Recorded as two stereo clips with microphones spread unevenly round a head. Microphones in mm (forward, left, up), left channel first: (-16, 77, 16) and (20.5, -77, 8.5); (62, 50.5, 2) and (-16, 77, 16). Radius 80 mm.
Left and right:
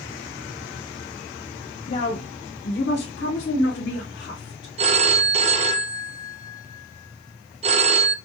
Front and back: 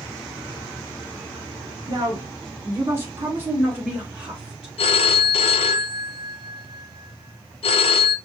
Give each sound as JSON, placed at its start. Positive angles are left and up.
{"t": 1.9, "sound": "a woman speaking", "azimuth_deg": 145, "distance_m": 0.8}
{"t": 4.8, "sound": "a phone ringing", "azimuth_deg": -20, "distance_m": 0.5}